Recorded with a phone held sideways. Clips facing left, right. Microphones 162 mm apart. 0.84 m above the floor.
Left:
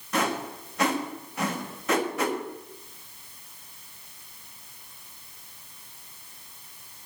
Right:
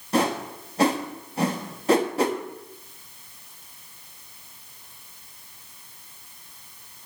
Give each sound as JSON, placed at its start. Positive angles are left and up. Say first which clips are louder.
{"t": 0.1, "sound": "a whoosh", "louder": "right 4 dB", "side_deg": -30, "distance_m": 1.4}